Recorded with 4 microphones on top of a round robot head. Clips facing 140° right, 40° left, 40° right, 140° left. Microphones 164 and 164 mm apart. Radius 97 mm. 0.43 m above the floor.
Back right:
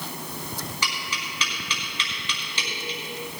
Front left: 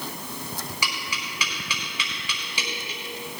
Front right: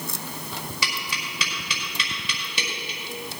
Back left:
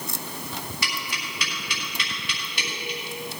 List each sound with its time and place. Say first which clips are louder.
0.8 s tapping: even, front right 1 dB; 40° right, 5 m